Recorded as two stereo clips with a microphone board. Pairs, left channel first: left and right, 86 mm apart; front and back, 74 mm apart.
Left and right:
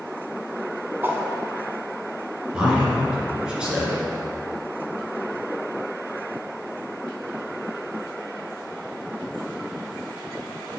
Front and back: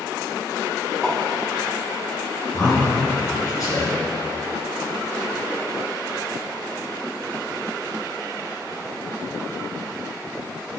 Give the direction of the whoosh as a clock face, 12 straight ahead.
2 o'clock.